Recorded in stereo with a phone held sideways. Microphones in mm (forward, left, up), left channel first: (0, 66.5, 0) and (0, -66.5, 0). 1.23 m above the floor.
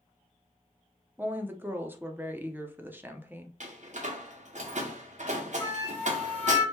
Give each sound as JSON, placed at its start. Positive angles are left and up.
{"t": 1.2, "sound": "a woman speaking", "side_deg": -15, "distance_m": 0.6}
{"t": 3.6, "sound": "a door slam", "side_deg": -60, "distance_m": 0.7}
{"t": 5.6, "sound": "a flute", "side_deg": 15, "distance_m": 1.6}